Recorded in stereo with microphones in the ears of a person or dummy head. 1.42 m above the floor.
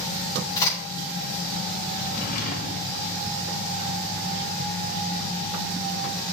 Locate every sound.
0.6 s a crack: 20° left (ahead or behind), 6.5 m
2.0 s a drawer: 40° left (ahead or behind), 1.5 m